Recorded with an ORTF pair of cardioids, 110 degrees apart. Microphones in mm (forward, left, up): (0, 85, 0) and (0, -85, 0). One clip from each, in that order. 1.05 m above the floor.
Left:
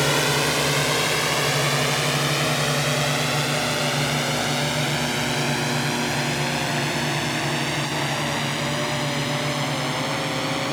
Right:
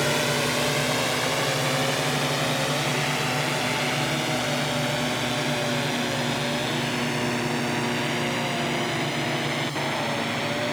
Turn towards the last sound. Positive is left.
turn(degrees=30)